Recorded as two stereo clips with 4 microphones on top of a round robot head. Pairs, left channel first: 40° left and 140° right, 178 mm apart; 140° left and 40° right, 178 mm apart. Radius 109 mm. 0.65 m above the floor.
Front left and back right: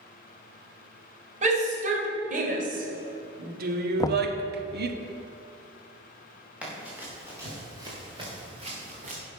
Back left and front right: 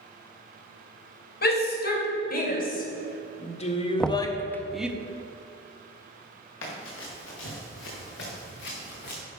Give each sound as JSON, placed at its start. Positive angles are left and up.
{"t": 1.4, "sound": "a shout", "azimuth_deg": 170, "distance_m": 3.0}
{"t": 4.0, "sound": "knocking", "azimuth_deg": 60, "distance_m": 0.6}
{"t": 6.6, "sound": "running footsteps", "azimuth_deg": 140, "distance_m": 4.5}